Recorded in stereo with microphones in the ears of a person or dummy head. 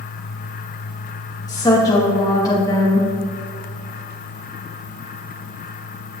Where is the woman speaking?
15° left (ahead or behind), 3 m.